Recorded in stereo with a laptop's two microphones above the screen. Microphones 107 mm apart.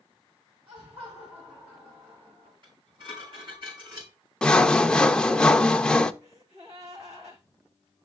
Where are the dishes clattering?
50° right (ahead or behind), 6 m.